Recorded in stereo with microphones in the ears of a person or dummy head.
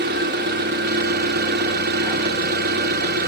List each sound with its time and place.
0.0 s an engine running: 60° right (ahead or behind), 1.9 m